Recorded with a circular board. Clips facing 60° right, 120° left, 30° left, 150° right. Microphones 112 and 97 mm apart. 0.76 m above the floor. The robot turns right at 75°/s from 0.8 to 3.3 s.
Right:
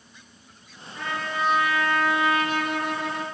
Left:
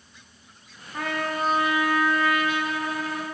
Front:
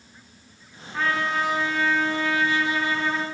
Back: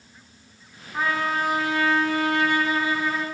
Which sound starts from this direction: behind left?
A trumpet, at 0.9 s.